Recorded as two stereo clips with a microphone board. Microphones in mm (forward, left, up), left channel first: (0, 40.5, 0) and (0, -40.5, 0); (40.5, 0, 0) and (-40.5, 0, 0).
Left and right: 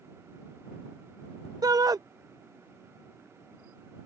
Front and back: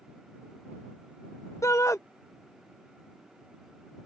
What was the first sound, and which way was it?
A shout, 50° right.